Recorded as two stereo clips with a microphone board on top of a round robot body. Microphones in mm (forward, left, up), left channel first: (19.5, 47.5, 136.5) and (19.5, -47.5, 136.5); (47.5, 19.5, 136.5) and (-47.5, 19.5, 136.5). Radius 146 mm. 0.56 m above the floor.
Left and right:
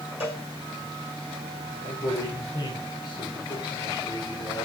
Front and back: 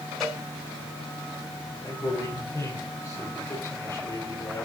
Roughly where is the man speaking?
Ahead left.